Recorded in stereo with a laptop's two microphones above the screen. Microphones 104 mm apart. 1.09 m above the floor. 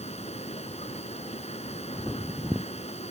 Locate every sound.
0.0 s a machine running: 80° left